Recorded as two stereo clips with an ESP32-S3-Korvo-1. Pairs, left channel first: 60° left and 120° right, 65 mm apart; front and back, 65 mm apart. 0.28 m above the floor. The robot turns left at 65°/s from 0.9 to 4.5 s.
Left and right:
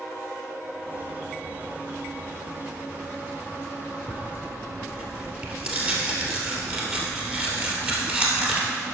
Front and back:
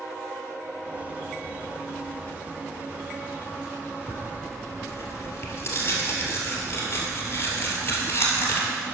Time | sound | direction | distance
4.1 | tearing paper | 25° right | 2 m